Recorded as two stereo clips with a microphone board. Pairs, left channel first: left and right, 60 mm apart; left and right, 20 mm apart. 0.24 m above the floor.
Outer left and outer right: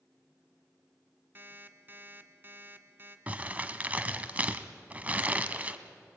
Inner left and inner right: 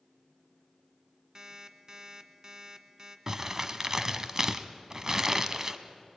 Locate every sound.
1.4 s an alarm clock: 35° right (ahead or behind), 1.4 m
3.3 s crumpling: 25° right (ahead or behind), 1.1 m